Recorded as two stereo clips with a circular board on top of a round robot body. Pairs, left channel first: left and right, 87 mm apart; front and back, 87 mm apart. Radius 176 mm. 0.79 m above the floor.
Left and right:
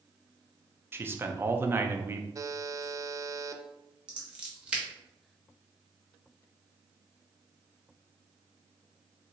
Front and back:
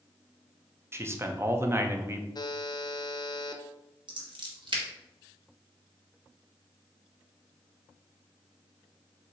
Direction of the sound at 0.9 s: 140° right.